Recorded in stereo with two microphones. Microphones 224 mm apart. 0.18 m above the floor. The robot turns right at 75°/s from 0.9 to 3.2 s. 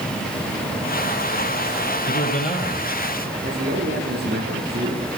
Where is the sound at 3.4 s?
45° right (ahead or behind), 6 m.